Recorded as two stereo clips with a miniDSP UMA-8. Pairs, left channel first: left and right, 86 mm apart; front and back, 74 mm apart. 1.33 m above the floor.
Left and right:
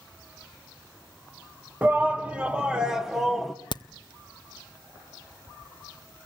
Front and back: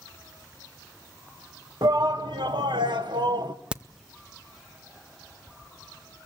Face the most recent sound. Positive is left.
turn(degrees=105)